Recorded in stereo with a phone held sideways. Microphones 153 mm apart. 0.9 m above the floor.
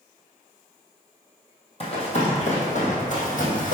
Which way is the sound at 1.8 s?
45° left (ahead or behind).